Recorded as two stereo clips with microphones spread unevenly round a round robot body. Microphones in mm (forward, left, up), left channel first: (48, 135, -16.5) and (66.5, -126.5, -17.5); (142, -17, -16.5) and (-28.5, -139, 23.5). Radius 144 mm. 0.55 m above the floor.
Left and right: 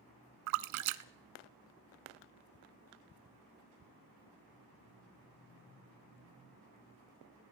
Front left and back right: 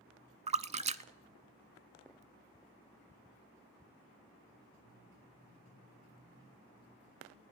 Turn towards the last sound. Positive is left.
turn(degrees=-90)